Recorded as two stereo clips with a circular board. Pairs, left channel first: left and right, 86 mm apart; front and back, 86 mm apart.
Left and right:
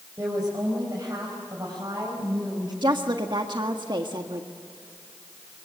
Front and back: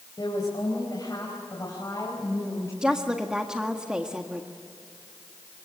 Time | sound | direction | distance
0.2 | a woman speaking | 35° right | 5 m
2.8 | a woman speaking | 100° right | 1.5 m